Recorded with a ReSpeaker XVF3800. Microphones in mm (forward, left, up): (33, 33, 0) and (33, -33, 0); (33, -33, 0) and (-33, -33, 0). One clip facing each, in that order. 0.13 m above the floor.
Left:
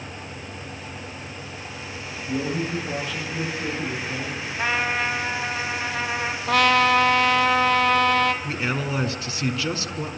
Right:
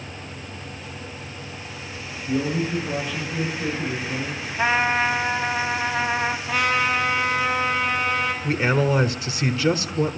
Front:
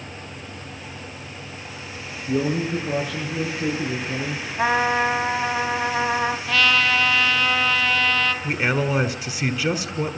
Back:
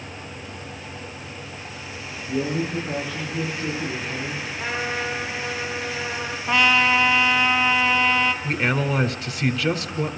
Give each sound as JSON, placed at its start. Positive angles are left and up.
{"t": 2.3, "sound": "a man speaking", "azimuth_deg": -5, "distance_m": 7.5}
{"t": 4.6, "sound": "a trumpet", "azimuth_deg": -15, "distance_m": 2.5}
{"t": 6.5, "sound": "a trumpet", "azimuth_deg": 110, "distance_m": 1.8}
{"t": 8.4, "sound": "a man speaking", "azimuth_deg": -65, "distance_m": 1.4}